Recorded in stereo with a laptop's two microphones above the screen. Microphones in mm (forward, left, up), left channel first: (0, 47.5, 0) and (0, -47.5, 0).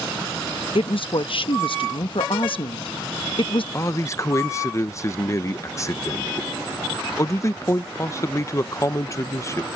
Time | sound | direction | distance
0.8 | a woman speaking | 65° left (ahead or behind) | ?
3.7 | a man speaking | 30° left (ahead or behind) | ?